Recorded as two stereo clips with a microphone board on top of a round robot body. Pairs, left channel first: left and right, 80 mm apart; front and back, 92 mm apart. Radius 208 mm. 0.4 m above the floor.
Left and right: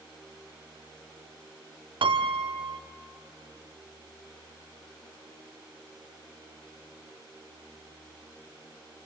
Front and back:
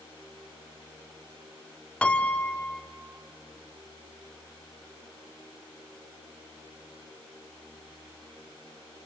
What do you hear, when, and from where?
2.0 s a piano: 80° right, 0.8 m